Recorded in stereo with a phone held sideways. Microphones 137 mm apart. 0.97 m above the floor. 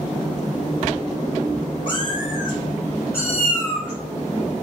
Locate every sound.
1.9 s a cat meowing: 35° left (ahead or behind), 1.1 m; by 4.7 s 5° left (ahead or behind), 2.5 m